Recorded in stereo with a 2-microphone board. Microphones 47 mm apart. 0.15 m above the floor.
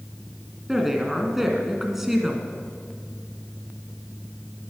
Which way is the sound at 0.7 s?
5° right (ahead or behind).